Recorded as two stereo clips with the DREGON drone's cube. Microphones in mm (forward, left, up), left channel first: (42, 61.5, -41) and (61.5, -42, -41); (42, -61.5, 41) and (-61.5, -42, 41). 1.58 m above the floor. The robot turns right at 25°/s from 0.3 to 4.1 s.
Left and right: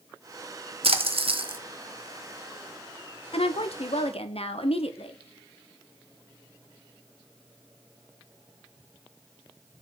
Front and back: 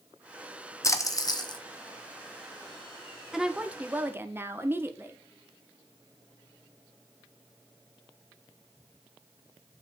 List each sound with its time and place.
0.8 s a splash: 70° right, 0.8 m; by 1.6 s 50° right, 0.8 m
3.3 s a woman speaking: 85° left, 0.9 m; by 5.2 s 105° left, 0.9 m